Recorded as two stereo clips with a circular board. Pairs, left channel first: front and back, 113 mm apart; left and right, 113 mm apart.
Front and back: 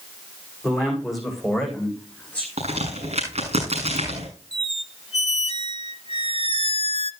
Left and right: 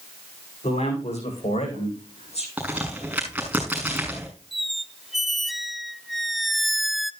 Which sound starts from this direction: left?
A man speaking, at 0.6 s.